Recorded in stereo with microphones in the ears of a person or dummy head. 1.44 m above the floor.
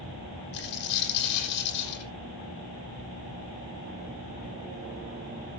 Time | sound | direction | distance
0.5 | a dropped coin | 60° left (ahead or behind) | 10 m